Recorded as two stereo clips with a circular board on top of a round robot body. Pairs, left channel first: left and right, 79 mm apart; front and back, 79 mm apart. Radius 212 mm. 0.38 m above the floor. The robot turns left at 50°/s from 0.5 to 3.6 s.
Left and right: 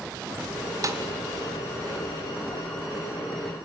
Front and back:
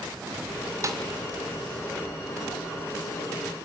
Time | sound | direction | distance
0.8 | a snare drum | 135° right | 2 m